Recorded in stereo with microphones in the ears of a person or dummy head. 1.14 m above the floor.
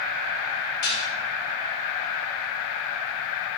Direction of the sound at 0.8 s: 55° left (ahead or behind).